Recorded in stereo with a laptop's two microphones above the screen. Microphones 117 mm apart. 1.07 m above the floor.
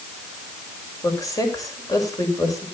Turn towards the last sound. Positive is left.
turn(degrees=30)  # may be behind; listen again after turning